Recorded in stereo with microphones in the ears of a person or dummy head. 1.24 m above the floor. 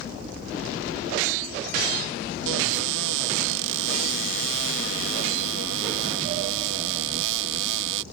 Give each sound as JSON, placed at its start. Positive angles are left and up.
{"t": 2.5, "sound": "a cupboard door", "side_deg": -75}